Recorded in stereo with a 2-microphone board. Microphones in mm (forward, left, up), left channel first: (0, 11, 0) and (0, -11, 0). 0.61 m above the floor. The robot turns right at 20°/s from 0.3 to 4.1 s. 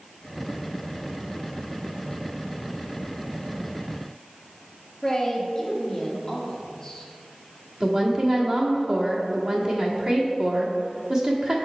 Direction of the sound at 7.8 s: 45° right (ahead or behind).